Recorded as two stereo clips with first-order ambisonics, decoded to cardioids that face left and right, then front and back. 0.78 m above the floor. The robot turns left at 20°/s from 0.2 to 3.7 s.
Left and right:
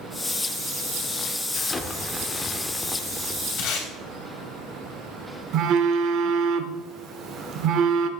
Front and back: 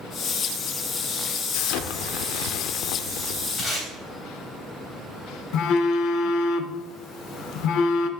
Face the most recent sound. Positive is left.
turn(degrees=-45)